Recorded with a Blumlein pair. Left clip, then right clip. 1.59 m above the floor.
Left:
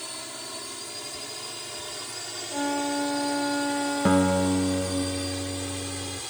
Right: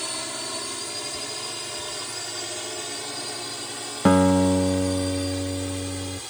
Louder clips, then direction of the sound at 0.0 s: Right 6 dB; 20° right.